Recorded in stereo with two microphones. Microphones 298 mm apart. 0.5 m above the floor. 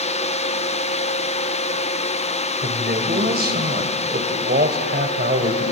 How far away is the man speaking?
About 2.5 m.